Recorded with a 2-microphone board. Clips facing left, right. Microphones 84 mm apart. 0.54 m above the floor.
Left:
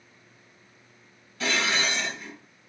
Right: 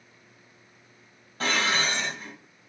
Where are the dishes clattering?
50° right (ahead or behind), 1.9 m.